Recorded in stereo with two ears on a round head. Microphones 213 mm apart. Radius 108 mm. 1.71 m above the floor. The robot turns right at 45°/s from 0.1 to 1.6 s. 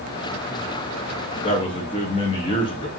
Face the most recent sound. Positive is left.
turn(degrees=20)  # may be behind; listen again after turning